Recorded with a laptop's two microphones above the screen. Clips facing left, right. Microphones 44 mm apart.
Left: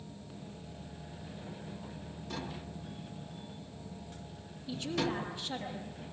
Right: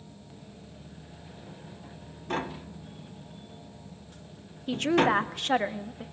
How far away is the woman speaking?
About 1.3 m.